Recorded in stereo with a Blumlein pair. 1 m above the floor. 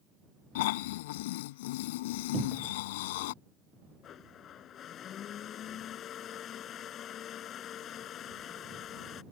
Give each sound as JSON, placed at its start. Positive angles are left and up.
{"t": 0.6, "sound": "snoring", "azimuth_deg": 50}
{"t": 2.3, "sound": "a cupboard door", "azimuth_deg": -15}
{"t": 4.0, "sound": "a blender", "azimuth_deg": 30}